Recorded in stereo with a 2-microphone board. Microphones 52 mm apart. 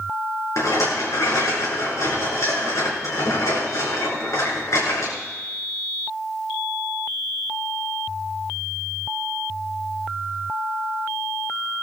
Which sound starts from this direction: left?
A rattle, at 0.6 s.